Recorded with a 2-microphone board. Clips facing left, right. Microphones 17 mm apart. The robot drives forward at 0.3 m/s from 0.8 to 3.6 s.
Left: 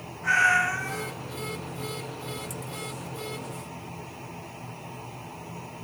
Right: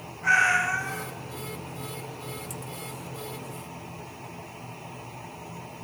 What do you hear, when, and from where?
0.2 s a cat meowing: 20° right (ahead or behind), 0.7 m